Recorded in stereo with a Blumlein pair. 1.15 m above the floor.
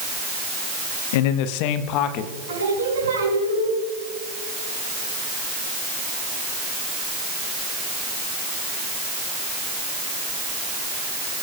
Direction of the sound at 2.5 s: 60° right.